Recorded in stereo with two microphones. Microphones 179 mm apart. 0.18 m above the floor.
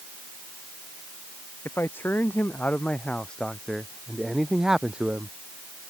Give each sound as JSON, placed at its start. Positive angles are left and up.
{"t": 1.6, "sound": "a man speaking", "side_deg": 15}